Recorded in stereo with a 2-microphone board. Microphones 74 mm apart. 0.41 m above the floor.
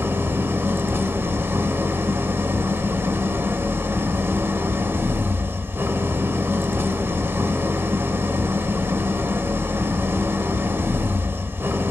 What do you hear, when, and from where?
0.0 s an engine running: 30° right (ahead or behind), 0.8 m